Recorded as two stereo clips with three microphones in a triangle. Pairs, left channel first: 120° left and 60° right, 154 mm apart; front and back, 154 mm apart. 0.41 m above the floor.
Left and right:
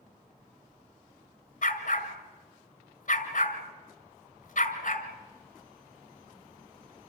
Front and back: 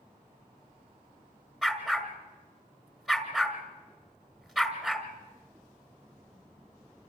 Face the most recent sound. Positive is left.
turn(degrees=95)